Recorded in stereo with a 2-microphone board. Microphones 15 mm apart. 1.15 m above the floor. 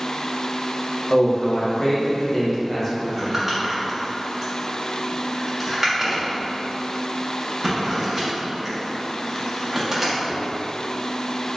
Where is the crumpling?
10° right (ahead or behind), 1.2 m.